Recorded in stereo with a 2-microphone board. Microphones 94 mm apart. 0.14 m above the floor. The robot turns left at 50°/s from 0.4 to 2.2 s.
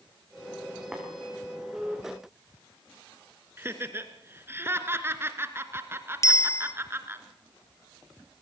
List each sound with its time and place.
0.9 s tapping: 10° right (ahead or behind), 5.5 m; by 1.0 s 15° right (ahead or behind), 5.5 m
3.6 s laughter: 25° right (ahead or behind), 1.9 m
6.2 s a bicycle bell: 35° left (ahead or behind), 2 m